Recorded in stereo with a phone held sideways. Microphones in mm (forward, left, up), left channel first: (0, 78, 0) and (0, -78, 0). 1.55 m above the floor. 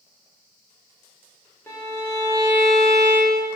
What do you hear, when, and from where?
1.7 s a violin: 15° left (ahead or behind), 0.5 m